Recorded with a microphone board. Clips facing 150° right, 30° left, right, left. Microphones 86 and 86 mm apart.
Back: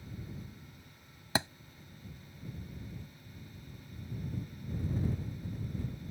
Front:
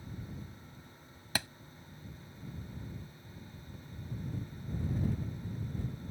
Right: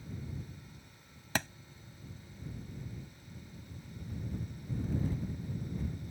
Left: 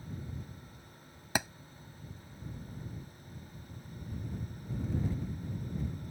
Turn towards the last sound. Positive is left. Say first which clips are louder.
# back 5 dB, left 1 dB
turn(degrees=165)